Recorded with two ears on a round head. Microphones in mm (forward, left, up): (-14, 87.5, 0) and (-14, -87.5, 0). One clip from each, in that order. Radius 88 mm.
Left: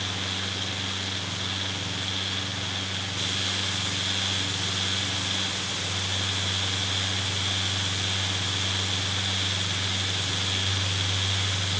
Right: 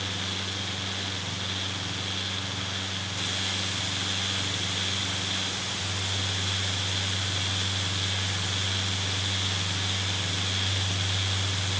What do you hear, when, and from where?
Only background noise.